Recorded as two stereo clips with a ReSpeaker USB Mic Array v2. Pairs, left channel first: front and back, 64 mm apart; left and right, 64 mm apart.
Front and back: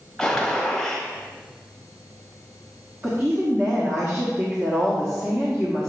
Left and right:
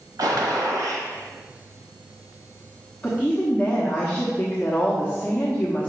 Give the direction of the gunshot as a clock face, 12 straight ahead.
3 o'clock.